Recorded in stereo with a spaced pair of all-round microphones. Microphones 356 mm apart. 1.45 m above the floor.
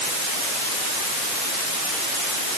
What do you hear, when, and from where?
Only background noise.